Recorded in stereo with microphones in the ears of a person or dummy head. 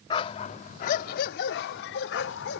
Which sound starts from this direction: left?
A dog barking, at 0.1 s.